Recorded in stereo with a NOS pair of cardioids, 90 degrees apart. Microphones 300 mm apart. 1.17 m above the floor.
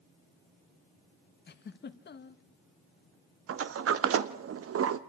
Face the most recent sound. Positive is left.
turn(degrees=-50)